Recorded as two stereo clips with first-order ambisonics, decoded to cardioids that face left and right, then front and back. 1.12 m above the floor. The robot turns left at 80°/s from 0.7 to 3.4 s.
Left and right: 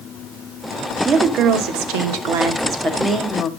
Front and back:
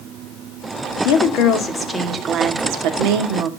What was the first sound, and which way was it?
A woman speaking, 15° right.